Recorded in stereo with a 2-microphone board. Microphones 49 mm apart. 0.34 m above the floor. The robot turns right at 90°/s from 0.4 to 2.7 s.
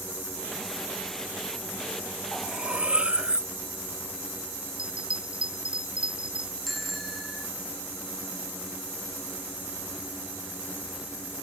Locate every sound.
2.3 s cutlery clinking: 170° left; by 3.5 s 155° right
4.8 s a bell: 20° right (ahead or behind)
6.7 s a bicycle bell: centre (ahead or behind)